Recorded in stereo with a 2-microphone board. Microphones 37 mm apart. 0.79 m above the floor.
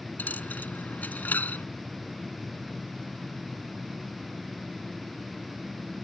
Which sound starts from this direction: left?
A dropped coin, at 0.2 s.